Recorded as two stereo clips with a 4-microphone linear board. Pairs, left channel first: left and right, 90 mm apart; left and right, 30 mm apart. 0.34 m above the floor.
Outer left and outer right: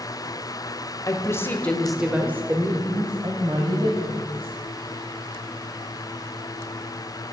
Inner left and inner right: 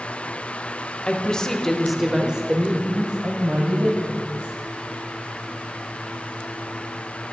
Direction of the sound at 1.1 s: 40° left (ahead or behind).